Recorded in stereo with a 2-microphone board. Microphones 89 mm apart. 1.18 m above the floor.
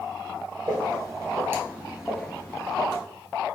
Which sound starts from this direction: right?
Footsteps, at 0.7 s.